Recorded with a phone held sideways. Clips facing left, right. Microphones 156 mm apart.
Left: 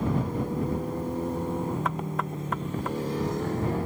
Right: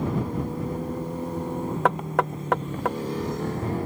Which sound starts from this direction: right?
Knocking, at 1.9 s.